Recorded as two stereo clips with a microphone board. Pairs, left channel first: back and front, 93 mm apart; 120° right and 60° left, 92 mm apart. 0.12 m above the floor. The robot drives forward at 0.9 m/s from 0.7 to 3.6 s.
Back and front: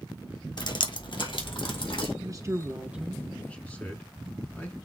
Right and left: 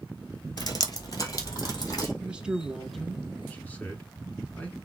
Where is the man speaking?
10° right, 1.4 m; by 4.8 s 155° right, 1.1 m.